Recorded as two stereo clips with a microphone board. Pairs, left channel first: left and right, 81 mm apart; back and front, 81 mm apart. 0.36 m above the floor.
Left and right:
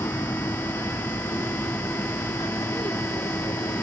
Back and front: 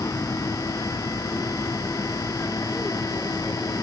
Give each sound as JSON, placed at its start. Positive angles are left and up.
{"t": 0.0, "sound": "an aircraft", "azimuth_deg": 130}